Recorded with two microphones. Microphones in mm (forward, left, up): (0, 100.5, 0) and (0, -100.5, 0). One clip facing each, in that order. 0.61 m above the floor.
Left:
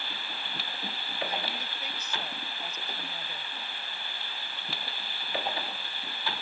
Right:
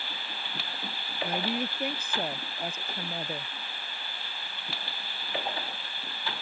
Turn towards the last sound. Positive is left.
turn(degrees=-50)  # may be behind; listen again after turning